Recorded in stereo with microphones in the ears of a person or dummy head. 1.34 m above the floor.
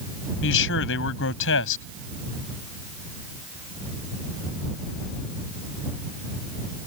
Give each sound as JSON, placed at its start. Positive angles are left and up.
{"t": 0.4, "sound": "a man speaking", "side_deg": 70}